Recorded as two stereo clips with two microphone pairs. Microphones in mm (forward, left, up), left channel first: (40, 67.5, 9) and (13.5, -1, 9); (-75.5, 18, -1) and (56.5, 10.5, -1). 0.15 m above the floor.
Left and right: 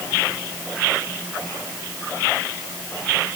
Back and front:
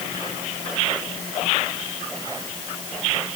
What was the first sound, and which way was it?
Only background noise.